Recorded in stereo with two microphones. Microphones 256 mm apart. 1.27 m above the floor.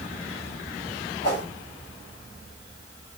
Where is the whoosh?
65° left (ahead or behind), 2.0 m.